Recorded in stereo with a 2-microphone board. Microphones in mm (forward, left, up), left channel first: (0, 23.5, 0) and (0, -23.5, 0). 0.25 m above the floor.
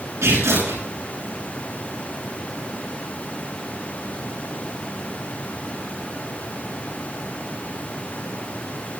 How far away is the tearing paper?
About 10 m.